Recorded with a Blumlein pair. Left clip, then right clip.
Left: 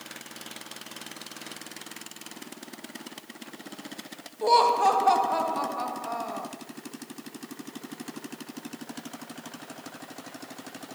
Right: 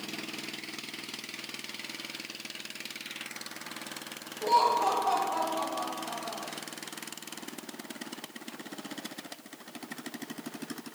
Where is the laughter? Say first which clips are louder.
Left 4 dB; 25° left, 1.7 m.